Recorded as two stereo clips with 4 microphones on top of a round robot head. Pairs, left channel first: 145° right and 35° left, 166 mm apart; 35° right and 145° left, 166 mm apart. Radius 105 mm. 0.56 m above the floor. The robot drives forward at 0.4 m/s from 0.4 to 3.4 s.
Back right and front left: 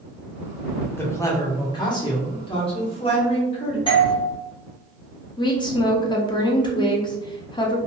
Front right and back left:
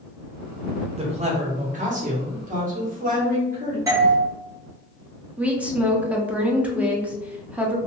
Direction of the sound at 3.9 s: 165° right.